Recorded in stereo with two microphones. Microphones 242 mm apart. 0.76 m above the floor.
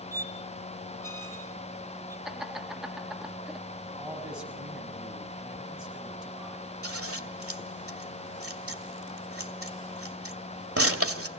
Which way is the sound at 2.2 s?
Centre (ahead or behind).